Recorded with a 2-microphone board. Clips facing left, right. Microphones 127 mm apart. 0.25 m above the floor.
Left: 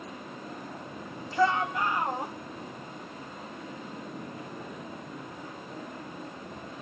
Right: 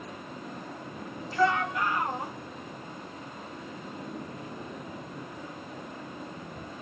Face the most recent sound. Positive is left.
turn(degrees=30)  # may be behind; listen again after turning